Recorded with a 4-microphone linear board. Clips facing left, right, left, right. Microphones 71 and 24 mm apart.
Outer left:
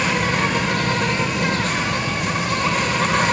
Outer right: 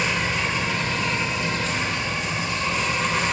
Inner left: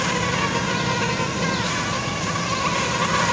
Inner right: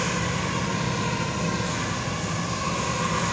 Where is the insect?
60° left (ahead or behind), 0.8 m.